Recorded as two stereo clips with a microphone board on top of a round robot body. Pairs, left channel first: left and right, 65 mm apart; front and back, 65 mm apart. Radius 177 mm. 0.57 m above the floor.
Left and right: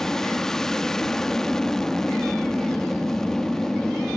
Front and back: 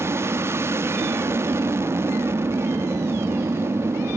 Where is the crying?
No crying in this recording.